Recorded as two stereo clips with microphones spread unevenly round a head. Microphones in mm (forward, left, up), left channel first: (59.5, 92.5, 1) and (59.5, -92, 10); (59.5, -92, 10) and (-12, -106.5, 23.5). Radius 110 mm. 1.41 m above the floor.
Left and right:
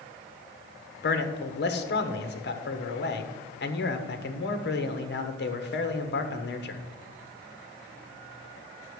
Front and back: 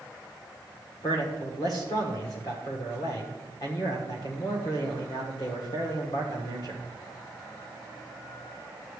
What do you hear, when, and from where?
1.0 s a man speaking: 65° left, 1.4 m